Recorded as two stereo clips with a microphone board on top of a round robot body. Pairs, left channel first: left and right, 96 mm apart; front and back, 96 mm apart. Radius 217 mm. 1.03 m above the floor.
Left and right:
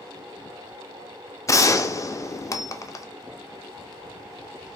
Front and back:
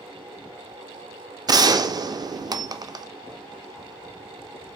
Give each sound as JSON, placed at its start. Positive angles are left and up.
{"t": 1.5, "sound": "a gunshot", "azimuth_deg": 140, "distance_m": 0.5}